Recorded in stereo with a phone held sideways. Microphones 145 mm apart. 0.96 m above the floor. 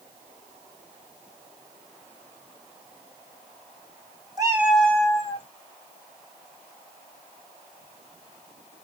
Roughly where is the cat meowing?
Right.